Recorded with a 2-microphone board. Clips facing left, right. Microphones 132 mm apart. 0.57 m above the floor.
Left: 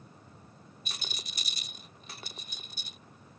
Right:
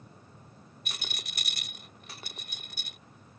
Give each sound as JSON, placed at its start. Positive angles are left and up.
{"t": 0.8, "sound": "a rattle", "side_deg": -65}